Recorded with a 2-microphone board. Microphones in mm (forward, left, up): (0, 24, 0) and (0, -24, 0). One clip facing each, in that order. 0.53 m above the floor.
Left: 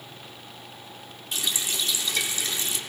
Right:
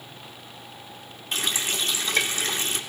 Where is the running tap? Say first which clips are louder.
Right 3 dB; 45° right (ahead or behind), 0.6 m.